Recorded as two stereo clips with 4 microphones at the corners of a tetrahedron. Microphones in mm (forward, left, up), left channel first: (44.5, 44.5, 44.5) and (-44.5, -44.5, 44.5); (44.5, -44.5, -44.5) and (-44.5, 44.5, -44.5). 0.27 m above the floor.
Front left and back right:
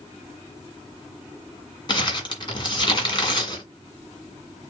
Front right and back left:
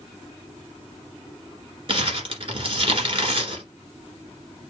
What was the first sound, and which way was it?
Crumpling, 95° left.